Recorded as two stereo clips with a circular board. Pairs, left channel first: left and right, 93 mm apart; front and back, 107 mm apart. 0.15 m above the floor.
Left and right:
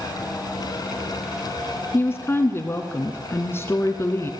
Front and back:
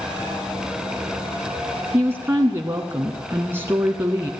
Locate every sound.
1.9 s a woman speaking: 130° left, 1.9 m